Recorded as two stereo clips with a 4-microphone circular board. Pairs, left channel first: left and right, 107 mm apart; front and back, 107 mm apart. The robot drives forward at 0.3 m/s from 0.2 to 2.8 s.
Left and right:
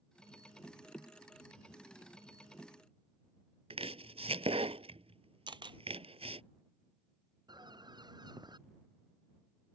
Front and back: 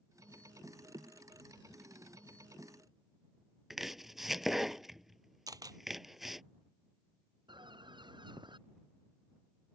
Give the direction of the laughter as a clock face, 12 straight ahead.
No laughter in this recording.